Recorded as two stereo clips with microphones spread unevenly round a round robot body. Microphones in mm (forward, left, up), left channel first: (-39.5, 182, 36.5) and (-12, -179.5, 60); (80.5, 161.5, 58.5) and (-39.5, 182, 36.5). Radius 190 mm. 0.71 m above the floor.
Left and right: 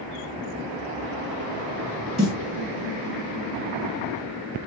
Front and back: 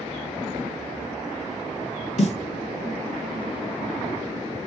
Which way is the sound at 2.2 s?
10° left.